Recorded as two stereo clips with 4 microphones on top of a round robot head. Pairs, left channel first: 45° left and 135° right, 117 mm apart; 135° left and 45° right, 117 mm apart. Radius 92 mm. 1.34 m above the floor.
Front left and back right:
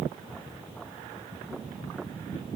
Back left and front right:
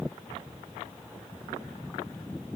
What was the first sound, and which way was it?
Only background noise.